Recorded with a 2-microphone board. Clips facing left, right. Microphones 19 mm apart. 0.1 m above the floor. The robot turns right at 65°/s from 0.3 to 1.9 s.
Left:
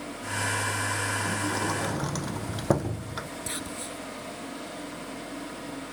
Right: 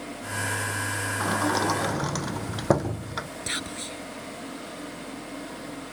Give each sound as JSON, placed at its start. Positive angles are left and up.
{"t": 1.2, "sound": "a sliding door", "azimuth_deg": -65}
{"t": 3.5, "sound": "whispering", "side_deg": -25}